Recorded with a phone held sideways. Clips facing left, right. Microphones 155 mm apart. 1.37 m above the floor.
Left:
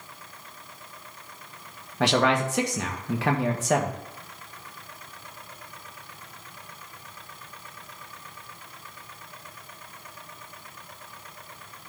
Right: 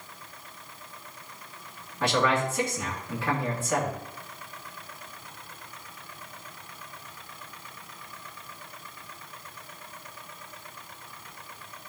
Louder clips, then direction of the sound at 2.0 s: Left 3 dB; 80° left.